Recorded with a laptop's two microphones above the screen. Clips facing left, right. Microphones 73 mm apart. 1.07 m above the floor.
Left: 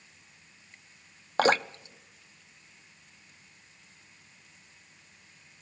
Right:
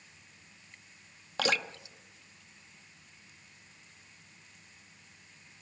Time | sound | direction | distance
1.4 | dripping | 40° left (ahead or behind) | 0.5 m